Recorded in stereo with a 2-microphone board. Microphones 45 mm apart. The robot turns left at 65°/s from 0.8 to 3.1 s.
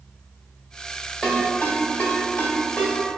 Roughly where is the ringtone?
Centre.